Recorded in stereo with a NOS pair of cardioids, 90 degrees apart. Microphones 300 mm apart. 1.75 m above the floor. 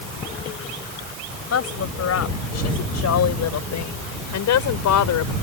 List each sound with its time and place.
1.5 s a woman speaking: 55° left; by 5.3 s 75° left